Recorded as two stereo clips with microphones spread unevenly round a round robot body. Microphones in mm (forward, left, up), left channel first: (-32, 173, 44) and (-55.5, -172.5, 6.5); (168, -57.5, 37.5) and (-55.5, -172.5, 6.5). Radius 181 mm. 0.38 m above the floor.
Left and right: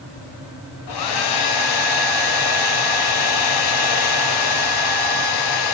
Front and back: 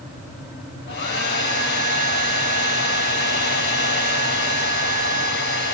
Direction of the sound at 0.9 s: 85° left.